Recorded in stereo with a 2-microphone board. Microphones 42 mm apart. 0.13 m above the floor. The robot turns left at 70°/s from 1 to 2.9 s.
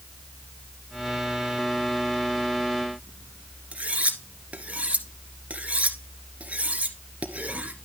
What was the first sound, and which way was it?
Cutlery clinking, 35° right (ahead or behind).